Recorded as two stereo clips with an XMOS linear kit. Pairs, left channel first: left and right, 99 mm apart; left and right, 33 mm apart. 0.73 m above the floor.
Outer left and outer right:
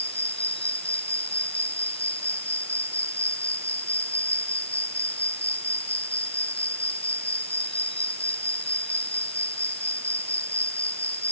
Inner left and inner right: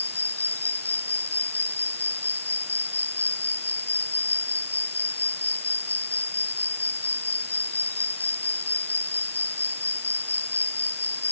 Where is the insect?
75° left (ahead or behind).